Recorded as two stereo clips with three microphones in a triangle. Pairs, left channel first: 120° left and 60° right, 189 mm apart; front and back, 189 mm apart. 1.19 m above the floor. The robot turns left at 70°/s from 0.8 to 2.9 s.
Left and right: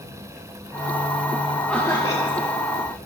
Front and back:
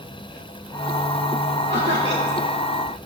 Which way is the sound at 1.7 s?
155° right.